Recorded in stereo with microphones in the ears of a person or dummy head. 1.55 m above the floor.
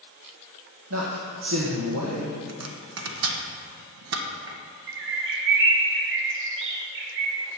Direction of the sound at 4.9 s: 70° right (ahead or behind).